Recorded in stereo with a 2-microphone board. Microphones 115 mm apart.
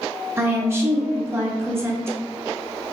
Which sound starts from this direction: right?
A woman speaking, at 0.4 s.